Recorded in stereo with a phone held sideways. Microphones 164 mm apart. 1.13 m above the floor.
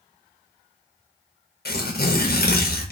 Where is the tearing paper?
70° left (ahead or behind), 0.6 m.